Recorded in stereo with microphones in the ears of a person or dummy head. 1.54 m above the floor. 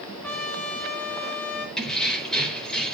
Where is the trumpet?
10° left (ahead or behind), 7 m.